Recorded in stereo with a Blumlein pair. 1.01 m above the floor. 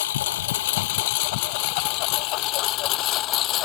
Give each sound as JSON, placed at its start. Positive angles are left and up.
{"t": 0.0, "sound": "a lawn mower", "azimuth_deg": 60}